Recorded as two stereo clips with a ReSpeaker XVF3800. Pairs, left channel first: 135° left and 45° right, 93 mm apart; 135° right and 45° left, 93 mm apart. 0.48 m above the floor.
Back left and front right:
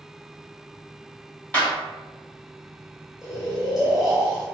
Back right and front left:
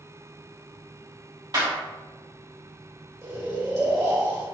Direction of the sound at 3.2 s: 35° left.